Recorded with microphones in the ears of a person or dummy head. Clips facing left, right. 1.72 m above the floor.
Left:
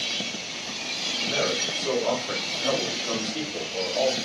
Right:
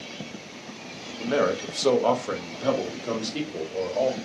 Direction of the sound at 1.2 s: 75° right (ahead or behind).